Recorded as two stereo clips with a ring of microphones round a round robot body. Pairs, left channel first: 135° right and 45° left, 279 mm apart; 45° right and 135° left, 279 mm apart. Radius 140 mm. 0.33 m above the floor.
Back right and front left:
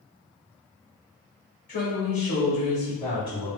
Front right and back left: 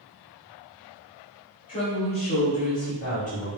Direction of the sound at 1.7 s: 85° right.